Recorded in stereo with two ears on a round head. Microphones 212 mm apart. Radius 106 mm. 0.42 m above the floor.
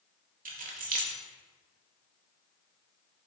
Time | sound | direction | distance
0.5 | keys jangling | 35° right (ahead or behind) | 1.2 m